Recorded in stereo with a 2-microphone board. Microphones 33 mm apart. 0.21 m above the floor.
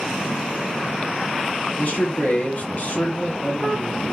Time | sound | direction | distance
1.8 | a man speaking | 55° left (ahead or behind) | 2.5 m